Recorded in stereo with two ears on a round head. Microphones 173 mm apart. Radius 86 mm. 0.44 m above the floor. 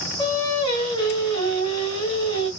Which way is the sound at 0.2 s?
20° left (ahead or behind).